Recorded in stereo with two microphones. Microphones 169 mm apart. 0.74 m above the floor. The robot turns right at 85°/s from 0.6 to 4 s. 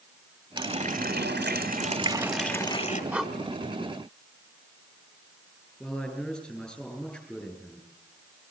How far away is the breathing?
About 1.3 m.